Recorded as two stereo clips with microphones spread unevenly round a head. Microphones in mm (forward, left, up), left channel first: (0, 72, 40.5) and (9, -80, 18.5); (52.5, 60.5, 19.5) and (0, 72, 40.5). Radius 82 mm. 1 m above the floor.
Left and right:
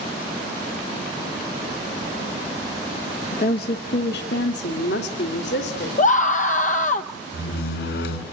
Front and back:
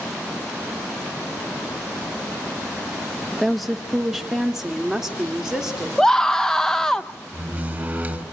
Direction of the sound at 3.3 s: 70° left.